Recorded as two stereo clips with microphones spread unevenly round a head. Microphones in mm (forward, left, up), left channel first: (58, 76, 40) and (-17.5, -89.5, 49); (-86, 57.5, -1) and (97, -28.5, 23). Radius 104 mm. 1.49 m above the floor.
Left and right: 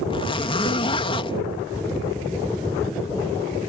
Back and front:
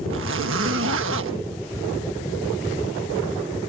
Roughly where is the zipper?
Ahead.